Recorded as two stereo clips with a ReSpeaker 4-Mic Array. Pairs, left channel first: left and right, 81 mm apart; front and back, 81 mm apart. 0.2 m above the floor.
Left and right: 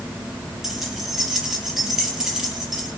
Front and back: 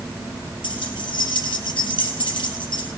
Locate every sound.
0.6 s keys jangling: 5° right, 3.5 m